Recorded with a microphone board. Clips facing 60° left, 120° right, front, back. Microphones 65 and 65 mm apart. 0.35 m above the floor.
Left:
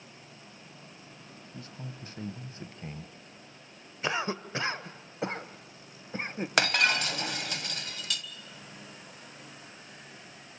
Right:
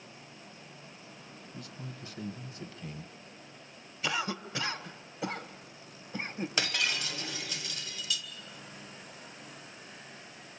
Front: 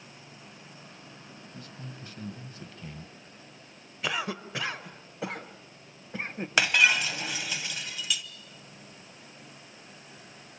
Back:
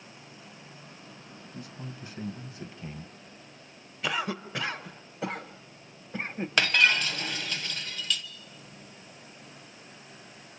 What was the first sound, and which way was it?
A man speaking, 110° left.